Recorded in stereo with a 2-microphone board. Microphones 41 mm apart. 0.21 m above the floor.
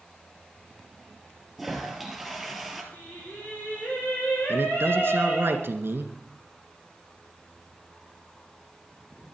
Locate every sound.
1.6 s a toilet flushing: centre (ahead or behind), 2.5 m
2.9 s singing: 45° left (ahead or behind), 5.5 m
4.5 s a man speaking: 65° right (ahead or behind), 2 m